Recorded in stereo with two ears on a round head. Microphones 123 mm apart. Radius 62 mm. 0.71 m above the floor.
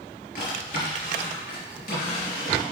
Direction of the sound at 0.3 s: 70° left (ahead or behind).